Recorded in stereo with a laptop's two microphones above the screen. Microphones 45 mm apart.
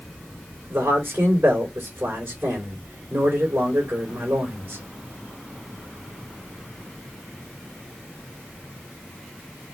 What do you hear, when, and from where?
0.7 s a man speaking: 45° right (ahead or behind), 3 m